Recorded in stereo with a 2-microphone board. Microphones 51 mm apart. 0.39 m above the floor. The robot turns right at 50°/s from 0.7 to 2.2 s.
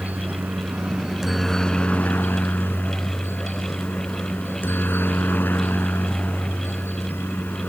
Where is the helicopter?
35° right; by 7.7 s 40° left.